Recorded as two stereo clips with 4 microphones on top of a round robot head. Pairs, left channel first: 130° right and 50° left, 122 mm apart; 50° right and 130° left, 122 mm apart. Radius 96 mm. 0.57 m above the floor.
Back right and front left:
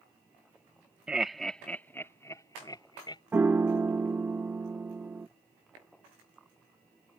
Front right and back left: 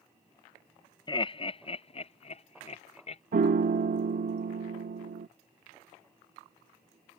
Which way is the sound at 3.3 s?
125° left.